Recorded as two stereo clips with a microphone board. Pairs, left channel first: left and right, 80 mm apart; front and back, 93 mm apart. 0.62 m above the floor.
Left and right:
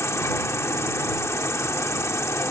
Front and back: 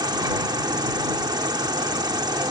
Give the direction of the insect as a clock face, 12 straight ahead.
7 o'clock.